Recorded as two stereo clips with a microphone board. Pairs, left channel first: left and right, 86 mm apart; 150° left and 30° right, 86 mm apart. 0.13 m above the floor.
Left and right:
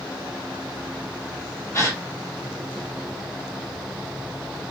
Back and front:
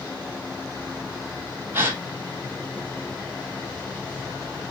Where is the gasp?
35° left, 0.6 m.